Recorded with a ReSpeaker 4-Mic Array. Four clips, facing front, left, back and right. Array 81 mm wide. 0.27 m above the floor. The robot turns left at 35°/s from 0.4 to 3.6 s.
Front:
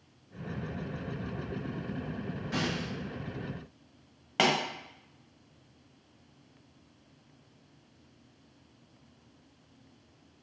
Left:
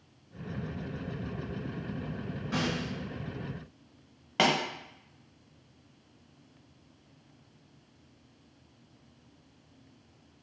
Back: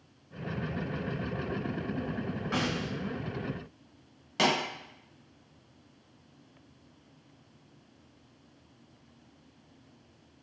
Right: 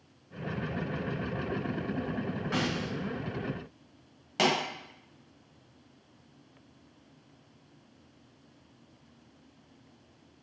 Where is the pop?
35° left, 1.0 m.